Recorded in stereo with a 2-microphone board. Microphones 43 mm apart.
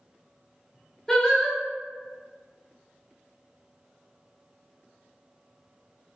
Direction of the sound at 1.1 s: 15° left (ahead or behind).